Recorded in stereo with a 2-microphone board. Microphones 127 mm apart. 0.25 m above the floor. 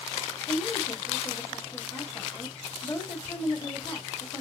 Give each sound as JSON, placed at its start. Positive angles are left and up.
{"t": 0.5, "sound": "a woman speaking", "side_deg": 20, "distance_m": 1.9}